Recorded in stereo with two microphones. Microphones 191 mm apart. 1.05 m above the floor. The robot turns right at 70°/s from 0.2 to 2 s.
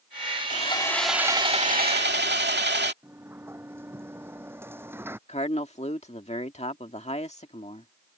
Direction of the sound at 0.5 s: 140° left.